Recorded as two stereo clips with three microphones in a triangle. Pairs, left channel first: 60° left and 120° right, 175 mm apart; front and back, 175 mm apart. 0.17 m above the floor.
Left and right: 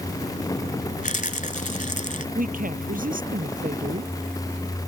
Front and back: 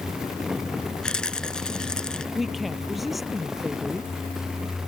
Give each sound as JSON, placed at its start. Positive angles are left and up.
{"t": 1.0, "sound": "a rattle", "azimuth_deg": 85}
{"t": 2.4, "sound": "a woman speaking", "azimuth_deg": -90}